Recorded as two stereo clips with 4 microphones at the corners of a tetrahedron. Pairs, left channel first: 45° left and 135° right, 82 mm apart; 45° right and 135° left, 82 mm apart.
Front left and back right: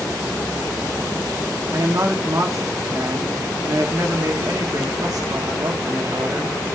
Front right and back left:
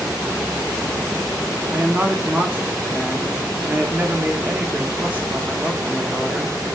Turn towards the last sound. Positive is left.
turn(degrees=-160)